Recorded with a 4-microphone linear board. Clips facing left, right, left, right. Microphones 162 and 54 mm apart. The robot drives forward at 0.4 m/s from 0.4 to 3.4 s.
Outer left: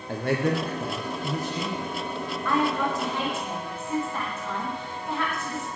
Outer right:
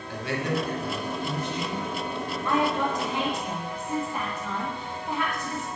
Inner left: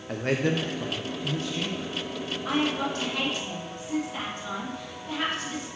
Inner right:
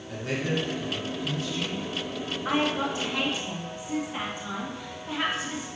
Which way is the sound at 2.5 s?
20° right (ahead or behind).